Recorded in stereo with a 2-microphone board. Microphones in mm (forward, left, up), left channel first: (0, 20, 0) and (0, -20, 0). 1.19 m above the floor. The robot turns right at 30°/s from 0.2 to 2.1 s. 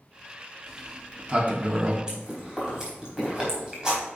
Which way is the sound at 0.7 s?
15° right (ahead or behind).